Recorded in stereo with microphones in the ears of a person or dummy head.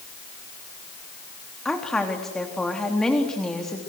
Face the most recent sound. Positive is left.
turn(degrees=5)  # may be behind; listen again after turning